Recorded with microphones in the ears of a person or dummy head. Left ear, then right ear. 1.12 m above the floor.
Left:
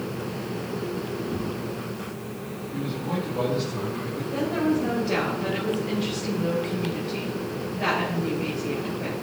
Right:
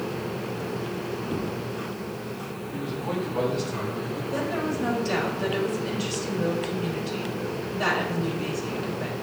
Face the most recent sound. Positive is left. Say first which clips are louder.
# left 4 dB
turn(degrees=-80)